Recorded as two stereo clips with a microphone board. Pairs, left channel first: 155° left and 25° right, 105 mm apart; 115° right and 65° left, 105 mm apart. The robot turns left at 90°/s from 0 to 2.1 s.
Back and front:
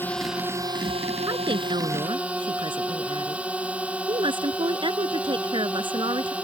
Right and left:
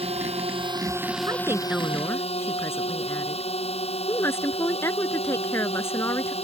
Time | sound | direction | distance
0.0 | a drone | 90° left | ?
1.3 | a woman speaking | 25° left | ?